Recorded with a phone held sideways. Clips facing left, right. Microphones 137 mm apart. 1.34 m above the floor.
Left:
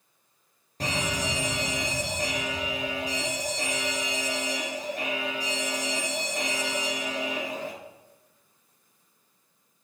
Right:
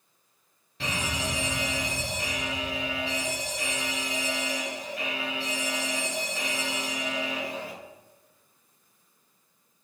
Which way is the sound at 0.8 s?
40° left (ahead or behind).